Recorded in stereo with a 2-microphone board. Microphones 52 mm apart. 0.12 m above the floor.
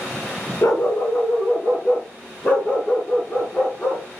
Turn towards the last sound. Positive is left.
turn(degrees=20)  # may be behind; listen again after turning